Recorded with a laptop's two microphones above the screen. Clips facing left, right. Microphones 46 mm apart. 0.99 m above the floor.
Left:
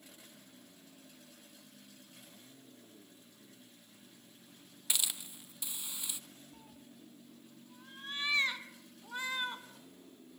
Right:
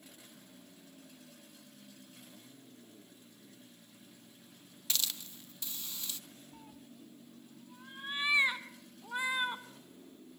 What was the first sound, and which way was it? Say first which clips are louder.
A hiss: even; 15° left (ahead or behind).